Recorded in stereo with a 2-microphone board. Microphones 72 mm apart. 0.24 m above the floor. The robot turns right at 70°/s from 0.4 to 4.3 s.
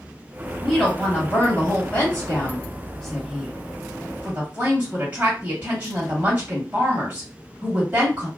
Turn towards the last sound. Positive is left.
turn(degrees=-20)  # may be behind; listen again after turning